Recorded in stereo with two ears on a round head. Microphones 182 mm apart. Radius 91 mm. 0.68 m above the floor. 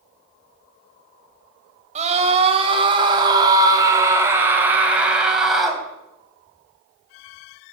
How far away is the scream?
About 3 m.